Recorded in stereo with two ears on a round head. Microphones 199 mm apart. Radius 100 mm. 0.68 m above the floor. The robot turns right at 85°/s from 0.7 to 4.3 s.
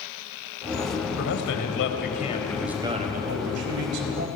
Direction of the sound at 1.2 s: 55° left.